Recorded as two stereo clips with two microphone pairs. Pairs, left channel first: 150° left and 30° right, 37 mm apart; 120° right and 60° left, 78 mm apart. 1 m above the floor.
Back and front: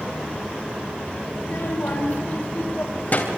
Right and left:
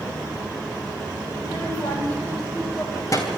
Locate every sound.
1.3 s a child speaking: 165° left, 3 m; by 3.3 s 165° right, 3 m